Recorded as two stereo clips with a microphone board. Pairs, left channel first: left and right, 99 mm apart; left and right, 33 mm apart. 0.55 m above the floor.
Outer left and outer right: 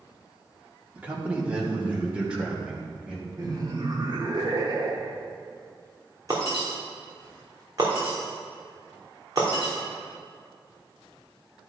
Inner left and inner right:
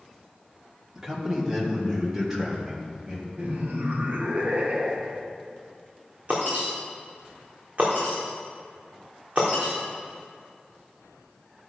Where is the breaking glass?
35° right (ahead or behind), 3.5 m.